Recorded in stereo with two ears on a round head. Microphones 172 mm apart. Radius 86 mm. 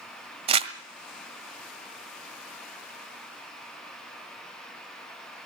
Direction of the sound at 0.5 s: 30° right (ahead or behind).